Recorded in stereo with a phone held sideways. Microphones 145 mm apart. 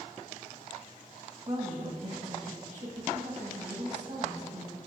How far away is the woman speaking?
About 1.7 m.